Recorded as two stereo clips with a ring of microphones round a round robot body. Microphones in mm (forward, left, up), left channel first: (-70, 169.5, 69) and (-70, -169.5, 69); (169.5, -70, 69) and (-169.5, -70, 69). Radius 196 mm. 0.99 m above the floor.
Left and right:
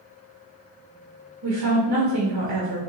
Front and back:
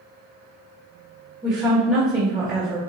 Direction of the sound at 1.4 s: 100° right.